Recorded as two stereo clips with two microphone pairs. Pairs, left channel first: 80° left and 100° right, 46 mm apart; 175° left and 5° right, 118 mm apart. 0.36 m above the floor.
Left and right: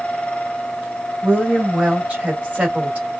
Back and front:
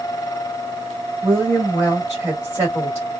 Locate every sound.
1.2 s a woman speaking: 65° right, 1.5 m